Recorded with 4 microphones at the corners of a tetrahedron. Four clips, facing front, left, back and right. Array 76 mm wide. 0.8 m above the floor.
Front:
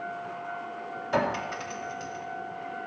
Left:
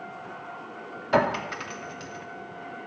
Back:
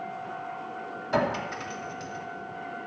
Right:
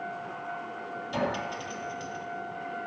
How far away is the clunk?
No clunk in this recording.